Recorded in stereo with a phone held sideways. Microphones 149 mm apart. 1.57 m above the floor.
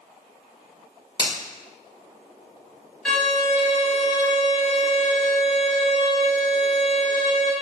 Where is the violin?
5° left (ahead or behind), 1.4 m.